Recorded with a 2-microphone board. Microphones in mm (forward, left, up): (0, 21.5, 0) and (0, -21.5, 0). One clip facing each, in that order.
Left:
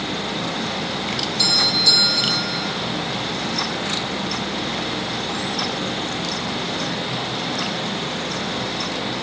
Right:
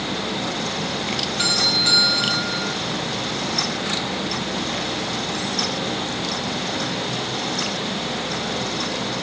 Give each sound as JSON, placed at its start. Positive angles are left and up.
{"t": 1.4, "sound": "a doorbell", "side_deg": -35, "distance_m": 3.0}